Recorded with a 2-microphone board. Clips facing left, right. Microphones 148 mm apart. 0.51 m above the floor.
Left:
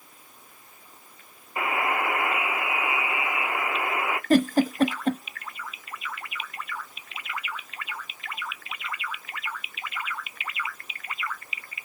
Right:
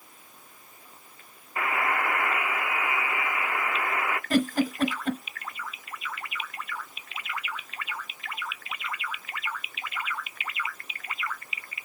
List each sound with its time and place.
1.6 s a buzzer: 20° left (ahead or behind), 0.7 m
4.3 s a giggle: 40° left (ahead or behind), 0.8 m